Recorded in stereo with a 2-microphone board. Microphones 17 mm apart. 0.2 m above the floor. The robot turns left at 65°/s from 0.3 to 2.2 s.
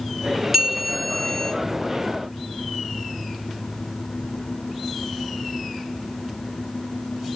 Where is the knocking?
No knocking in this recording.